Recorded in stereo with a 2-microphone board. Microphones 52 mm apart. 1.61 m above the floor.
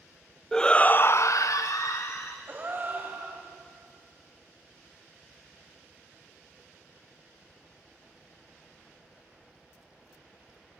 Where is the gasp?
40° right (ahead or behind), 5 m.